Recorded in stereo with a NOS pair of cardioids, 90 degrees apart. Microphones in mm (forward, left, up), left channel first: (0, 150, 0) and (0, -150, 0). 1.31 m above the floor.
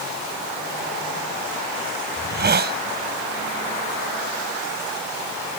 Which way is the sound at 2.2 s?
35° right.